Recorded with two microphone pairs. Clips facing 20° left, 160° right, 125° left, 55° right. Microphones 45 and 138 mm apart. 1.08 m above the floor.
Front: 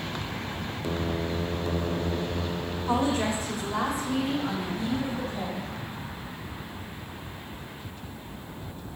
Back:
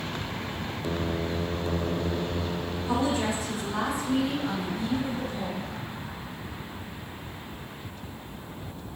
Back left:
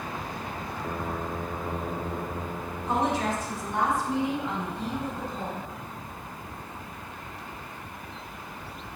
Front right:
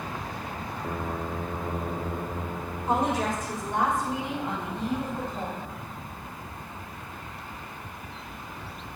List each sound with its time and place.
2.9 s a woman speaking: 20° right, 4 m; by 5.7 s 25° right, 6 m